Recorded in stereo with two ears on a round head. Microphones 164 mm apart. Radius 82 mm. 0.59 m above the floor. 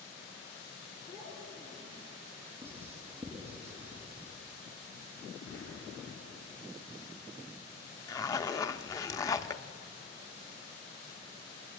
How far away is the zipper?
About 0.7 m.